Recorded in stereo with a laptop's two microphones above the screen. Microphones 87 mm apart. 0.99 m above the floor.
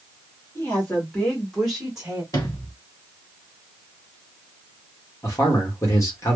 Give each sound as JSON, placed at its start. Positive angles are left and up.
{"t": 0.6, "sound": "a woman speaking", "side_deg": 25, "distance_m": 1.8}
{"t": 2.3, "sound": "a sliding door", "side_deg": 40, "distance_m": 1.2}
{"t": 5.2, "sound": "a man speaking", "side_deg": 35, "distance_m": 1.6}